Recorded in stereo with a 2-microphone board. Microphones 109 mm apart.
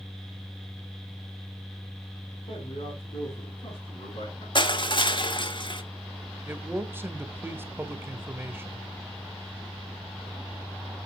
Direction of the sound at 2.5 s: 70° left (ahead or behind).